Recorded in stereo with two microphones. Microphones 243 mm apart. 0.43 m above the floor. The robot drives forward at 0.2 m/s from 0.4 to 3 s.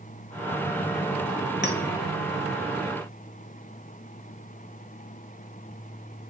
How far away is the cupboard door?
No cupboard door in this recording.